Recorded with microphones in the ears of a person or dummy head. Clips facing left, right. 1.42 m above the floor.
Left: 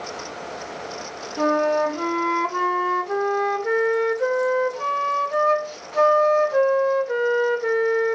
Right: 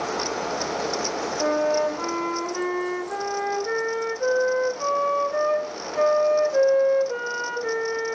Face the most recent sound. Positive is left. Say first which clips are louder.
# left 3 dB
turn(degrees=70)  # may be behind; listen again after turning